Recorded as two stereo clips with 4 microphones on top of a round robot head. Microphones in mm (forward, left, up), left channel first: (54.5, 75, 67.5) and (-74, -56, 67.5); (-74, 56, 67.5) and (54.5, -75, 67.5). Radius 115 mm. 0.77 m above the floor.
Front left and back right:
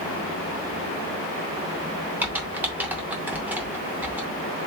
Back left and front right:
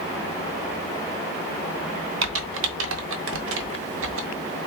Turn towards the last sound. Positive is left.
turn(degrees=-55)